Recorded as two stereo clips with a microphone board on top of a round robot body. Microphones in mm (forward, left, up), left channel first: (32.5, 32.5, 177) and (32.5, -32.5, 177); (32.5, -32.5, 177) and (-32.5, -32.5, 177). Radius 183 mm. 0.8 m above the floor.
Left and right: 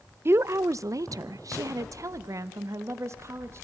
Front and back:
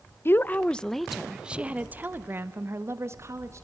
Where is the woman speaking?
50° right, 1.0 m; by 3.6 s 135° right, 2.5 m.